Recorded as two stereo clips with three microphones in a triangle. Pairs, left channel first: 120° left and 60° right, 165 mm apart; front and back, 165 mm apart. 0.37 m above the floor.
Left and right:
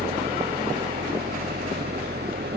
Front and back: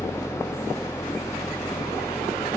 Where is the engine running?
75° right.